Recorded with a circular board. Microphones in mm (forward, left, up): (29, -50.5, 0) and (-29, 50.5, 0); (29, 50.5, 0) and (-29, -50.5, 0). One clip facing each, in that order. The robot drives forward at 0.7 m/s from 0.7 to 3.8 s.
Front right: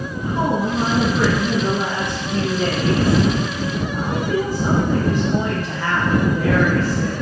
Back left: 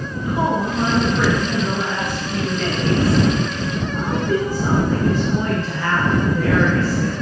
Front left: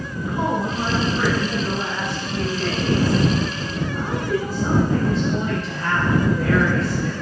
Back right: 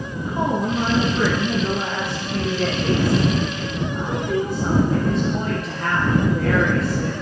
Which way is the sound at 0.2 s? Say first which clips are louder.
Even, back right 1 dB; 85° right.